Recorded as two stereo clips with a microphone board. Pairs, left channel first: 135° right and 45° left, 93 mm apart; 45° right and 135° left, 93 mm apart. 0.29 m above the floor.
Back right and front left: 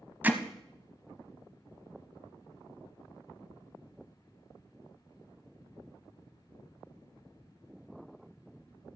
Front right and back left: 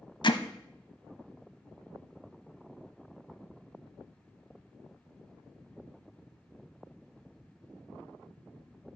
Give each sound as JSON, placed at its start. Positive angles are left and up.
{"t": 0.2, "sound": "hammering", "azimuth_deg": -25, "distance_m": 0.8}